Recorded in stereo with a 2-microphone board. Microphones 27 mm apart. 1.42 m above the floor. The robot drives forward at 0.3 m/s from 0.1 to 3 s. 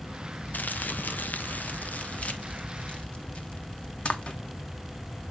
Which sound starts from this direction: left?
Crumpling, at 0.5 s.